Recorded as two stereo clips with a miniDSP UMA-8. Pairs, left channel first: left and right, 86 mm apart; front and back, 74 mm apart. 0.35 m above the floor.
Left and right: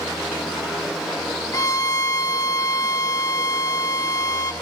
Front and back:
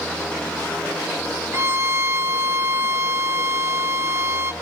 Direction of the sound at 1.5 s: 135° left.